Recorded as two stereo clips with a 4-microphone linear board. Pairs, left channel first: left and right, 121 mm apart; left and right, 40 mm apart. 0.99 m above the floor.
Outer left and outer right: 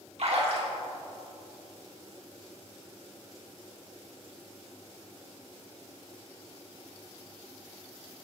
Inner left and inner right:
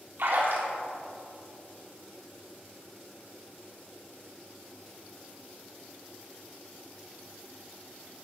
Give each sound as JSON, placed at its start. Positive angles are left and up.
{"t": 0.2, "sound": "a splash", "side_deg": -65, "distance_m": 3.0}